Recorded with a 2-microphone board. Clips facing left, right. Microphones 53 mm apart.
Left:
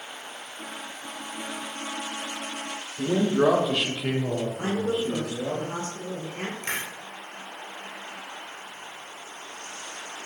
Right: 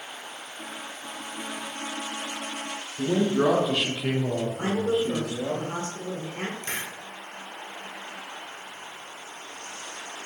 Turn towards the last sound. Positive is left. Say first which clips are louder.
# left 2 dB
turn(degrees=45)  # may be behind; listen again after turning